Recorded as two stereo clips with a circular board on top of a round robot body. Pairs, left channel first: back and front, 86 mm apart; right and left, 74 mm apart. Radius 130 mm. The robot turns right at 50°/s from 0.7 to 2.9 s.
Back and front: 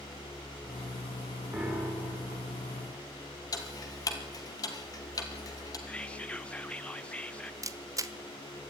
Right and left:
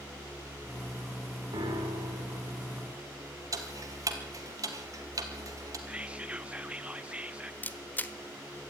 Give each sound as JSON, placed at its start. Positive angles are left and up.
{"t": 1.5, "sound": "a piano", "azimuth_deg": 80, "distance_m": 5.0}
{"t": 3.5, "sound": "ticking", "azimuth_deg": 135, "distance_m": 2.5}
{"t": 5.9, "sound": "whispering", "azimuth_deg": 130, "distance_m": 1.1}
{"t": 7.6, "sound": "a camera shutter", "azimuth_deg": -30, "distance_m": 1.4}